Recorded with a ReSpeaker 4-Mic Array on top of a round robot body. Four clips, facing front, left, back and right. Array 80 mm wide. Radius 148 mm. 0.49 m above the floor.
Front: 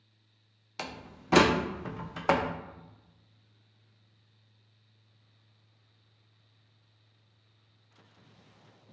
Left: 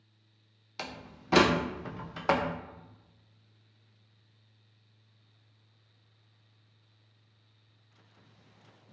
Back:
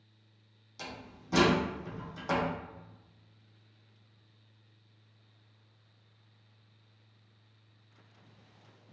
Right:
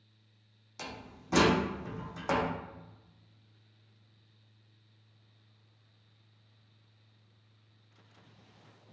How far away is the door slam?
About 0.6 m.